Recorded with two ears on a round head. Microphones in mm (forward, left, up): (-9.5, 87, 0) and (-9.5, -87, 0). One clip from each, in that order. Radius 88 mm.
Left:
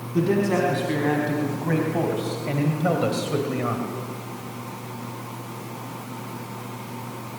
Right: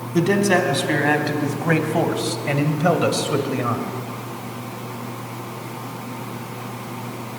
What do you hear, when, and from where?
0.1 s a man speaking: 65° right (ahead or behind), 4 m; by 3.9 s 10° right (ahead or behind), 2 m